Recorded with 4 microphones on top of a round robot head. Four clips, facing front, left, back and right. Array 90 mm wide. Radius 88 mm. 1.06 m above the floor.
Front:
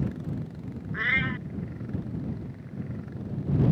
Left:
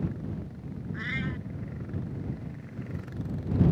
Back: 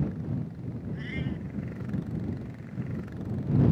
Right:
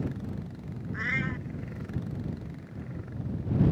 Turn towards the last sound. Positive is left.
turn(degrees=-20)